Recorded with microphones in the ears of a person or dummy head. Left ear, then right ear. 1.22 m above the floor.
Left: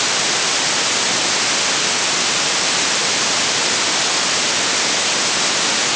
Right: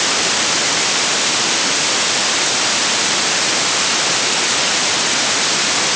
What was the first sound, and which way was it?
Only background noise.